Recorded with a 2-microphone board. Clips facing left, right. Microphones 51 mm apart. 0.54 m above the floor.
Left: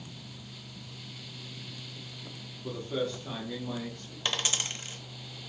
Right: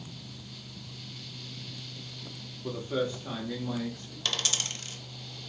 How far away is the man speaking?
About 0.7 m.